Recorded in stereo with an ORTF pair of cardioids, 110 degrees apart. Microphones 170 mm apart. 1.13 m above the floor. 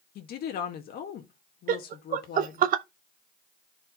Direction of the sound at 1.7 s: 60° right.